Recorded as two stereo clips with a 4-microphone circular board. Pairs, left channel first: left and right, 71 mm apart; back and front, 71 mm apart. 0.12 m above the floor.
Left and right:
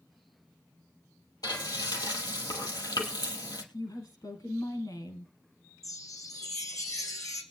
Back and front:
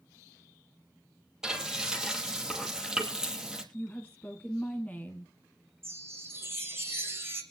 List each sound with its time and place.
1.4 s frying: 80° left, 3 m
3.7 s a woman speaking: 110° left, 3.5 m
5.8 s a chime: 55° left, 3 m